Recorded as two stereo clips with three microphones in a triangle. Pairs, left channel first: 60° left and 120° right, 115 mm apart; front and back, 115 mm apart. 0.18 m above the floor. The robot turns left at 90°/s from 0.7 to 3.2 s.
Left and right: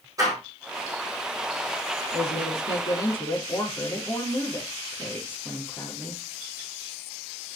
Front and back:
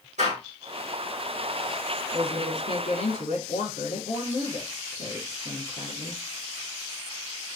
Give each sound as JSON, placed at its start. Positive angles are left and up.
{"t": 0.2, "sound": "a door slam", "azimuth_deg": 180, "distance_m": 7.5}
{"t": 2.1, "sound": "a woman speaking", "azimuth_deg": 85, "distance_m": 5.0}